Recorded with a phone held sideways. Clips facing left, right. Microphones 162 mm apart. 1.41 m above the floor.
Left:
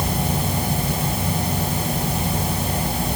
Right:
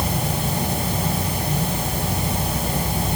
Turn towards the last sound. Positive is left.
No sound to turn to.